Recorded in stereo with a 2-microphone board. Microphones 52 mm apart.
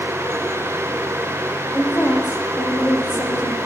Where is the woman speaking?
55° left (ahead or behind), 8 m; by 3.6 s 65° left (ahead or behind), 8 m.